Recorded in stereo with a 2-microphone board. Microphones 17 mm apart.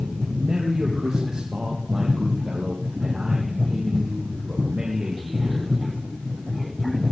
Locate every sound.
0.3 s a man speaking: 65° right (ahead or behind), 4 m